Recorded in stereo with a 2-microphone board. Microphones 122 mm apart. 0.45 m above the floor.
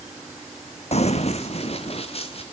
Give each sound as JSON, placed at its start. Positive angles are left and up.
{"t": 0.9, "sound": "running footsteps", "side_deg": 60, "distance_m": 1.0}